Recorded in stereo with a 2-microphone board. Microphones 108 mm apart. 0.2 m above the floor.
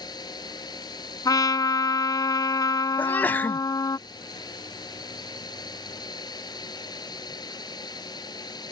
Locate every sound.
0.0 s a drone: 40° left (ahead or behind)
1.2 s a trumpet: 35° left (ahead or behind)
3.0 s a sneeze: 15° left (ahead or behind)